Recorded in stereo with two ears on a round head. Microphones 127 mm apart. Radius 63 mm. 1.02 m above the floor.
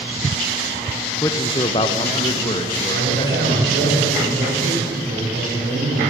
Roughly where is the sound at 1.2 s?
Left.